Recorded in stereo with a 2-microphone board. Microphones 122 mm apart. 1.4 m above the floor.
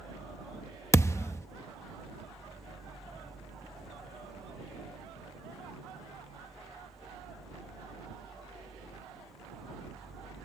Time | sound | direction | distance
0.9 | a thud | 25° left (ahead or behind) | ?